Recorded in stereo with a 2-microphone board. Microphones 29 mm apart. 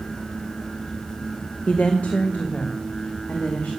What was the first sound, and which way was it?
A woman speaking, 60° left (ahead or behind).